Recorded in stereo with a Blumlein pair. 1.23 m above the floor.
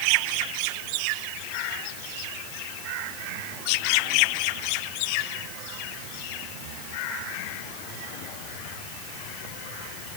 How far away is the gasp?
No gasp in this recording.